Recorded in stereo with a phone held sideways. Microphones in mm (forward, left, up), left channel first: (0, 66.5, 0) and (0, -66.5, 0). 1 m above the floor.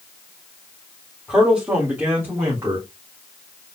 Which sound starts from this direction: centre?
A man speaking, at 1.3 s.